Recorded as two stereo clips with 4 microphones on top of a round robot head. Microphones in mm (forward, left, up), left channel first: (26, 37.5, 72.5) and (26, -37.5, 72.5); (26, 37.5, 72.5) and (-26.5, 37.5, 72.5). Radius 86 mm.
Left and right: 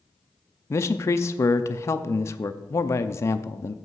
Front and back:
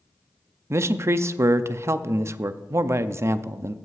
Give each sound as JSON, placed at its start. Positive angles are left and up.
{"t": 0.7, "sound": "a man speaking", "azimuth_deg": 145, "distance_m": 0.5}